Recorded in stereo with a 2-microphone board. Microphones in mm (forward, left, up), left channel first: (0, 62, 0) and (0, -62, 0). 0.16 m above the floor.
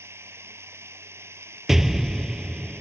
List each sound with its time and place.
0.0 s running water: 20° right (ahead or behind)
1.7 s an explosion: 5° right (ahead or behind)